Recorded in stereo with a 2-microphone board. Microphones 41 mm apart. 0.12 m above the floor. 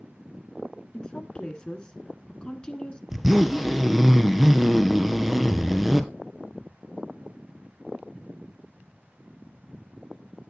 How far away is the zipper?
About 0.8 m.